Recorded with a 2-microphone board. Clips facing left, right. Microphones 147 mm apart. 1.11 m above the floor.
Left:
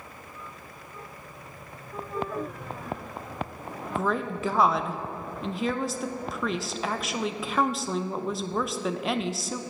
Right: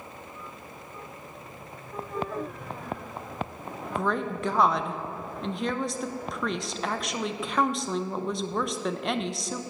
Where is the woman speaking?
Centre (ahead or behind), 0.6 m.